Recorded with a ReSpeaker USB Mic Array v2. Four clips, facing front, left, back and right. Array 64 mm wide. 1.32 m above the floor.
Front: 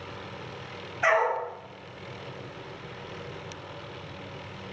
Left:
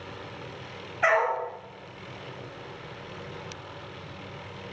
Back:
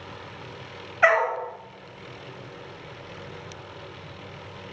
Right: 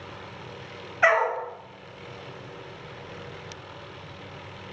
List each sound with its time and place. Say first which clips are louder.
1.0 s a dog barking: right 2 dB, back 3 dB; 145° right, 1.3 m